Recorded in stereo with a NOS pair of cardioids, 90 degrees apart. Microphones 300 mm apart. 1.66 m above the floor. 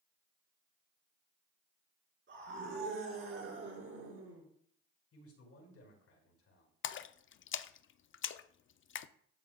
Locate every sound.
2.3 s a scream: 40° right, 5 m; by 4.5 s 55° right, 6 m
5.1 s a man speaking: 55° left, 5.5 m
6.8 s a splash: 45° left, 0.5 m